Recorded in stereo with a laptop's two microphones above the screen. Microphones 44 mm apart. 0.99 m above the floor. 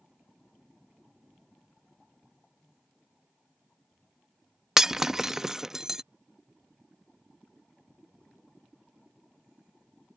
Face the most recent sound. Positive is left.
turn(degrees=-10)  # may be behind; listen again after turning